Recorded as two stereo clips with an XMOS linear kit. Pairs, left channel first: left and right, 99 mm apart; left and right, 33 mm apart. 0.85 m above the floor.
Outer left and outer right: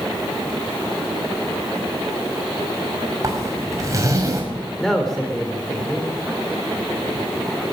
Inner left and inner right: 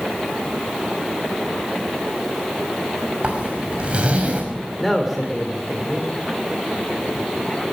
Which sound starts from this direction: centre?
A man speaking, at 4.8 s.